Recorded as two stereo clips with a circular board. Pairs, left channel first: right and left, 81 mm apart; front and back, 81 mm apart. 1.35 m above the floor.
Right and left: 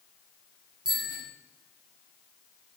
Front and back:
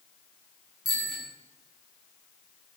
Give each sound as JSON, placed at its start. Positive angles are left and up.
{"t": 0.8, "sound": "a bicycle bell", "azimuth_deg": 90, "distance_m": 9.5}